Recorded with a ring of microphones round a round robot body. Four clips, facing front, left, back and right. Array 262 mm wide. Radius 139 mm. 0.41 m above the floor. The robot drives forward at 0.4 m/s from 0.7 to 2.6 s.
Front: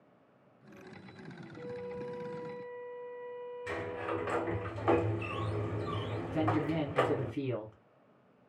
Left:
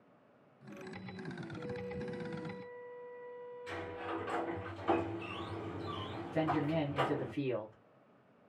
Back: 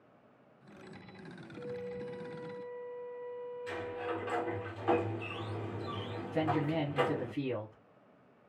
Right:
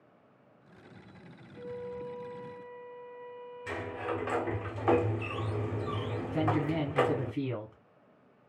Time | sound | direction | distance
1.5 | a flute | 45° right | 1.3 m
3.7 | a sliding door | 65° right | 0.6 m
6.3 | a man speaking | 70° right | 1.4 m